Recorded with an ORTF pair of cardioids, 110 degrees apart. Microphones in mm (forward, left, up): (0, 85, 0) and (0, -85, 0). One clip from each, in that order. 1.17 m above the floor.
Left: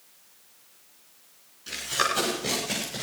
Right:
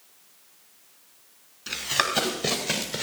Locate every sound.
1.7 s running footsteps: 45° right, 7 m; by 3.0 s 55° right, 8 m